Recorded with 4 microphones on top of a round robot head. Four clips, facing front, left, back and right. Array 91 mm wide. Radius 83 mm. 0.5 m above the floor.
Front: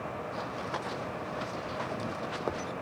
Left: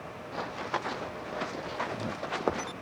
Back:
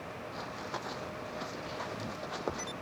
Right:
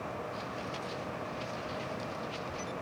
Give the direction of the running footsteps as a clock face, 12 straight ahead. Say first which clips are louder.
Left 5 dB, front 2 dB; 9 o'clock.